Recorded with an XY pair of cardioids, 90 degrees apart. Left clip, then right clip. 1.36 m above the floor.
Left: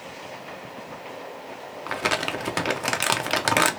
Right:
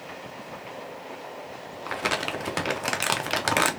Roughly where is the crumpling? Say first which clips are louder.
Left 2 dB; ahead.